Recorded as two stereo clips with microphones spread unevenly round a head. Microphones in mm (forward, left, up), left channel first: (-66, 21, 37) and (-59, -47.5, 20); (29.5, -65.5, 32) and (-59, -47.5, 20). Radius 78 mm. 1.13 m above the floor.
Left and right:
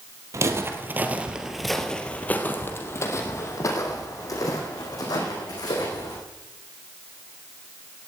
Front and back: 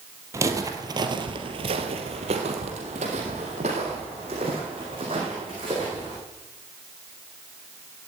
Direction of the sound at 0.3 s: 135° right.